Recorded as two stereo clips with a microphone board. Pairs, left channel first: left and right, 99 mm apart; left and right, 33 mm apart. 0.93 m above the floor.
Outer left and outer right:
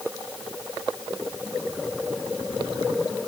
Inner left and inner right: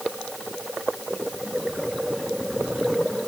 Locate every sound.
Only background noise.